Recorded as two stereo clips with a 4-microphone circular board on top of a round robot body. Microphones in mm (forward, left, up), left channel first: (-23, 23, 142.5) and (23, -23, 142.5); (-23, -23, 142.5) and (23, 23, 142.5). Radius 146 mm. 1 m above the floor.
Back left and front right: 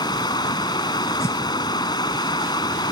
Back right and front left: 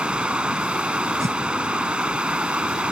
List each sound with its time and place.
0.0 s running water: 120° left
1.2 s a whoosh: 85° left